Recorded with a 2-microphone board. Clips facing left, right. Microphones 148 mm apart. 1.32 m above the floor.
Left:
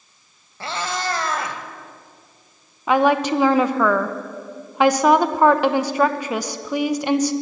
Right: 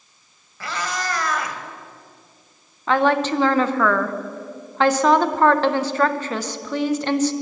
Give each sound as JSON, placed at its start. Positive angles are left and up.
{"t": 0.6, "sound": "a cat meowing", "side_deg": 30, "distance_m": 1.6}
{"t": 2.9, "sound": "a woman speaking", "side_deg": 10, "distance_m": 0.9}